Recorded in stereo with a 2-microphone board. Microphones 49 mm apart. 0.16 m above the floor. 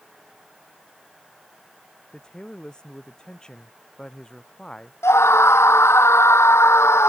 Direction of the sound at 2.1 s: 15° left (ahead or behind).